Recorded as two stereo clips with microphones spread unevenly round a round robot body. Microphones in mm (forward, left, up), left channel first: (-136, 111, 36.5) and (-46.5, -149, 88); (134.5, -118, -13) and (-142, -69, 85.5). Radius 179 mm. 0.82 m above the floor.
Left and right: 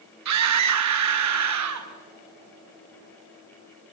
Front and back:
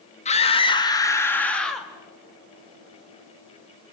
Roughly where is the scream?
Ahead right.